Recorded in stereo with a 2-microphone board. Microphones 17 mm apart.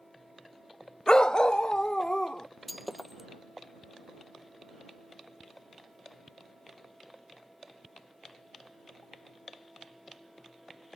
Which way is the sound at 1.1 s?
55° left (ahead or behind).